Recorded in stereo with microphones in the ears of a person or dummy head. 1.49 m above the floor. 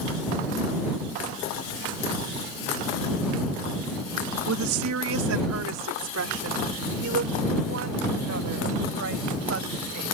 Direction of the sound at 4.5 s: 85° right.